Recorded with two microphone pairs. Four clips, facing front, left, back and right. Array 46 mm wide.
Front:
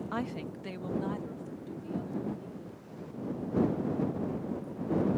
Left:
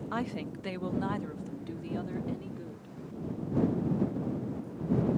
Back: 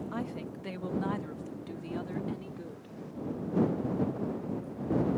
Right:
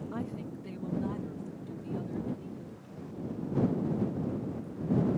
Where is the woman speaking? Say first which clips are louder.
Left 6 dB, front 1 dB; 60° left; by 3.0 s 155° left.